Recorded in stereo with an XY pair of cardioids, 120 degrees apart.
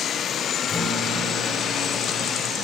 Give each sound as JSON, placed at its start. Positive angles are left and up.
{"t": 0.7, "sound": "a guitar", "azimuth_deg": 35, "distance_m": 3.0}